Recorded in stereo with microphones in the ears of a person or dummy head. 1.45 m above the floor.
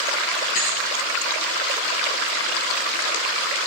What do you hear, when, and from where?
0.6 s a thud: 70° left (ahead or behind), 5 m